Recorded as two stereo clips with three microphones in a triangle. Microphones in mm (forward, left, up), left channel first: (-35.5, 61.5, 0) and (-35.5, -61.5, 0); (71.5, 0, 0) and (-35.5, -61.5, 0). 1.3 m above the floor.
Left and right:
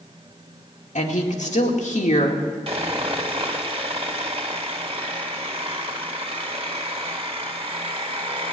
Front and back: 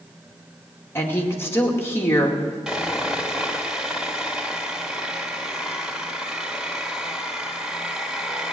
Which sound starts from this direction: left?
A woman speaking, at 0.9 s.